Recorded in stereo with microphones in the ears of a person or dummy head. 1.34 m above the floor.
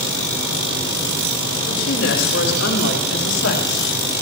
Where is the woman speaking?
70° left (ahead or behind), 4.5 m; by 3.9 s 80° left, 2.5 m.